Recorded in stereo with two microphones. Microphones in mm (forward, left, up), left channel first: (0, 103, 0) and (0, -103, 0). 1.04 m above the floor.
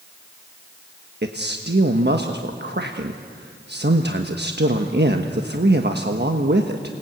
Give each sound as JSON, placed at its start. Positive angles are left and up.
{"t": 1.2, "sound": "a man speaking", "side_deg": -60, "distance_m": 1.2}